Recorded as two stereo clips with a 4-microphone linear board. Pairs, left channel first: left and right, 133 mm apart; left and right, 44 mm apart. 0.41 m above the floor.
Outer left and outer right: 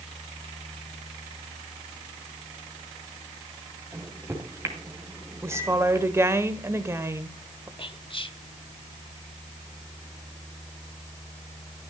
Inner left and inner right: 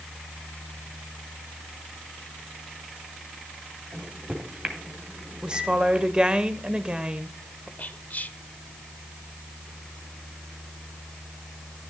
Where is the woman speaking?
20° right (ahead or behind), 1.1 m.